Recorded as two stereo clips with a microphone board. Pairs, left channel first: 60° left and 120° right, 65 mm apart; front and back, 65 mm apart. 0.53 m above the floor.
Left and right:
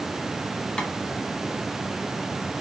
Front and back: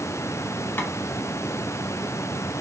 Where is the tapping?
5° right, 1.4 m.